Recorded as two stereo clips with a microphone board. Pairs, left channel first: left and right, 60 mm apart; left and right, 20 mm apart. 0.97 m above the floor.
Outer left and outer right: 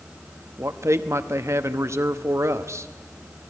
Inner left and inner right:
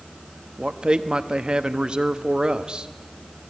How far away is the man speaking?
About 1.0 m.